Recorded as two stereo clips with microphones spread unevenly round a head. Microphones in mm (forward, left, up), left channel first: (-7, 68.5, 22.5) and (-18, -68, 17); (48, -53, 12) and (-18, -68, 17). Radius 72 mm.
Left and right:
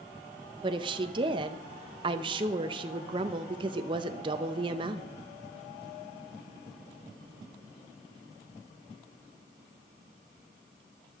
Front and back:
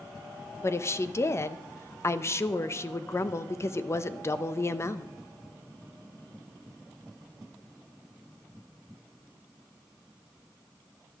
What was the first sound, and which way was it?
A woman speaking, 35° right.